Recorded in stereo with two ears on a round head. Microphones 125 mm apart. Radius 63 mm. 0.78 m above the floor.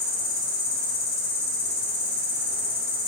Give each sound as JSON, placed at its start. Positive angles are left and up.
{"t": 0.0, "sound": "an insect", "side_deg": 80, "distance_m": 1.6}